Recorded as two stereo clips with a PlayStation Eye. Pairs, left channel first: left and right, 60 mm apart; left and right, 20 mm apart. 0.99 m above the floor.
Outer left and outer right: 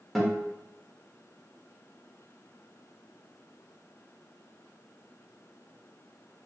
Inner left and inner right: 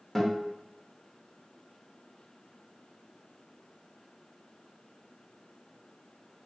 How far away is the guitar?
About 0.9 m.